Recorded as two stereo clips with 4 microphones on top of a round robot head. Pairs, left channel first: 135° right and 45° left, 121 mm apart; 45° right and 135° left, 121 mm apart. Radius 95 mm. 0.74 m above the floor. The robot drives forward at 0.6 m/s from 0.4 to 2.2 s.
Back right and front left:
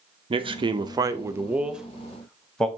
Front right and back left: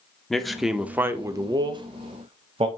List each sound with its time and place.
0.3 s a man speaking: 45° left, 1.0 m; by 2.7 s 140° left, 1.0 m